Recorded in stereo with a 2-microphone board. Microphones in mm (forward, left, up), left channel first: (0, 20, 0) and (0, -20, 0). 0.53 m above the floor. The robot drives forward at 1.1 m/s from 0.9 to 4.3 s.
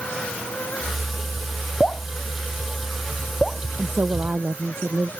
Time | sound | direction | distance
1.8 | dripping | 20° left (ahead or behind) | ?
3.8 | a woman speaking | 80° right | ?